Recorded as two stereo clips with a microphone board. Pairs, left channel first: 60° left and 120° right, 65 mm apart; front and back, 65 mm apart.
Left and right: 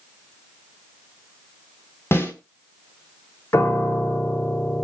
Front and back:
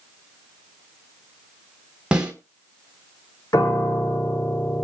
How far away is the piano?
About 1.8 m.